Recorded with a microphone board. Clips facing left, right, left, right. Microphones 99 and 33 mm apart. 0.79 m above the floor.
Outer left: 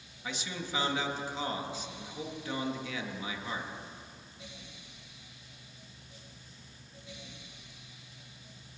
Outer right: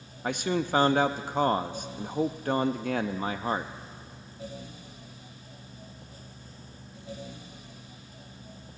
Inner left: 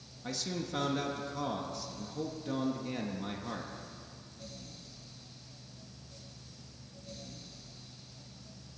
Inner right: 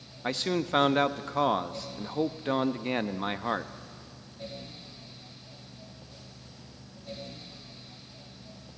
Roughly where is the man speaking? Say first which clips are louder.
Outer right 11 dB, inner right 9 dB; right.